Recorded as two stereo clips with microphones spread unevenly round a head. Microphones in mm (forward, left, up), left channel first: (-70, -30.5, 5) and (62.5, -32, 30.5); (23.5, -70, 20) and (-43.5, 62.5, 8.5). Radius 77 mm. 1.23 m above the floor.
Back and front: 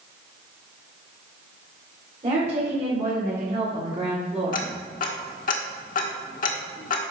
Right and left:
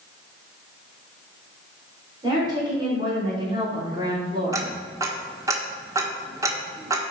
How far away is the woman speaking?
About 4 m.